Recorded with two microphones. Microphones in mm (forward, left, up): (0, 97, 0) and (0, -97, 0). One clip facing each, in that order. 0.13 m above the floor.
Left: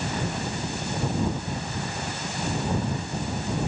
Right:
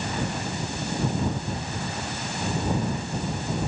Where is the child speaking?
I don't hear a child speaking.